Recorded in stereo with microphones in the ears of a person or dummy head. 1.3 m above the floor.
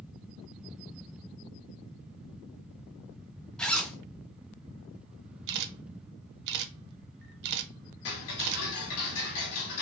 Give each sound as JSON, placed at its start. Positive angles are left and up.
{"t": 3.6, "sound": "a zipper", "side_deg": 10, "distance_m": 0.5}
{"t": 5.5, "sound": "a camera shutter", "side_deg": -60, "distance_m": 0.6}
{"t": 8.1, "sound": "ticking", "side_deg": 75, "distance_m": 1.5}